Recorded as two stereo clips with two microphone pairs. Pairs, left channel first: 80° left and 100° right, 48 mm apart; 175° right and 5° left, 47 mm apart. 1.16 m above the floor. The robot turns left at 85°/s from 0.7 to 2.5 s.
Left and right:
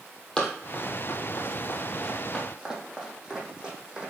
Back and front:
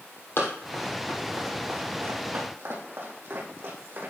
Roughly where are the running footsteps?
Behind left.